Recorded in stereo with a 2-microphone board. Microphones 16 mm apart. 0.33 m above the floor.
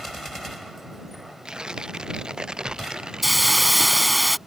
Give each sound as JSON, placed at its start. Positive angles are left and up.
{"t": 1.4, "sound": "tearing paper", "side_deg": -50}
{"t": 3.2, "sound": "a hiss", "side_deg": -5}